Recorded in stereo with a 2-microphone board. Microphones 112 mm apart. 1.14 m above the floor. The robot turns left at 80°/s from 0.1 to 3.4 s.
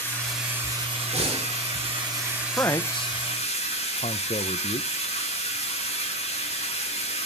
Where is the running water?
15° left, 7 m; by 7.2 s 115° left, 7 m.